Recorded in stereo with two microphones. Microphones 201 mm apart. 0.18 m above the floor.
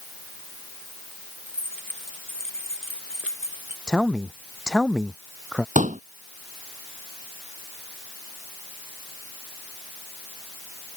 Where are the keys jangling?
80° left.